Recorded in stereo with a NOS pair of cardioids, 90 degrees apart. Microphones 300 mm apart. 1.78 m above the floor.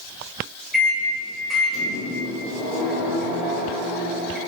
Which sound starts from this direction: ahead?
A microwave, at 0.7 s.